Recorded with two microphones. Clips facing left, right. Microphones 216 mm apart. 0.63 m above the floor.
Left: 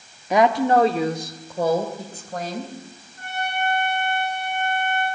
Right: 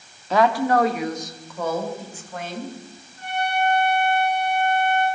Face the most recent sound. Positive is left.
turn(degrees=50)  # may be behind; listen again after turning